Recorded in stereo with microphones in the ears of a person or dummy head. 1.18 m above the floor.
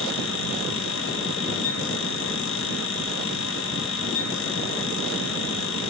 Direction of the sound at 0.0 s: 65° left (ahead or behind).